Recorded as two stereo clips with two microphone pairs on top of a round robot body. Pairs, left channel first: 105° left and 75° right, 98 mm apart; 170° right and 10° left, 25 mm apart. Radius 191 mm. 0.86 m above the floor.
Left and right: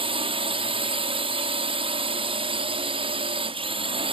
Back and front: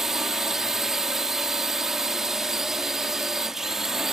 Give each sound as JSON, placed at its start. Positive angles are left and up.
{"t": 0.0, "sound": "a drone", "azimuth_deg": -65}